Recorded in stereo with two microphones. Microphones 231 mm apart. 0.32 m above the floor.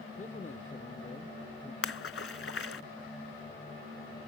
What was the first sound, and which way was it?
A man speaking, 35° left (ahead or behind).